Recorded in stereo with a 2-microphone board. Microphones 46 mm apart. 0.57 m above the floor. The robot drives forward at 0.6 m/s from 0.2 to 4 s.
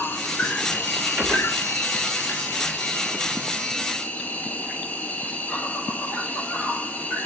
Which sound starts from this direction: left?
An insect, at 0.0 s.